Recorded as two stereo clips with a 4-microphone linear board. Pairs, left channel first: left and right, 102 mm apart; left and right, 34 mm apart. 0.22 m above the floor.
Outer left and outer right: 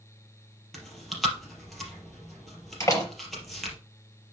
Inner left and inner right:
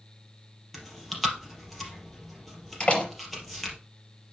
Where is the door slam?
30° left (ahead or behind), 4 m.